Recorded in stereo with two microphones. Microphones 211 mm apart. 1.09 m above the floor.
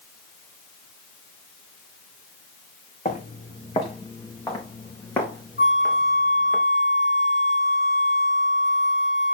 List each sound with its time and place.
3.0 s footsteps: 35° left (ahead or behind), 3.5 m; by 6.6 s centre (ahead or behind), 6 m
5.6 s a flute: 60° left (ahead or behind), 3.5 m